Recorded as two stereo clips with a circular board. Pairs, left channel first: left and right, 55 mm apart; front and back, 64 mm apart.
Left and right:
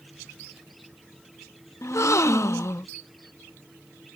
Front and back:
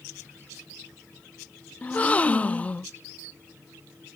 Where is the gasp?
65° left.